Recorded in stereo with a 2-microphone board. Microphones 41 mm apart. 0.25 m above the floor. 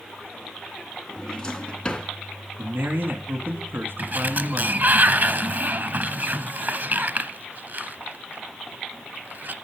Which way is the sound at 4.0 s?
45° right (ahead or behind).